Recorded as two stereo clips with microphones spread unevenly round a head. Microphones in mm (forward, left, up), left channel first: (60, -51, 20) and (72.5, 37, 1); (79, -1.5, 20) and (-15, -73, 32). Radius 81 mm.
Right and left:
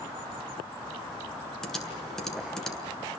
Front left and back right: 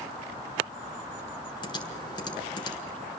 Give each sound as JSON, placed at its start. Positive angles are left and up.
{"t": 1.6, "sound": "typing on a keyboard", "azimuth_deg": -15, "distance_m": 7.0}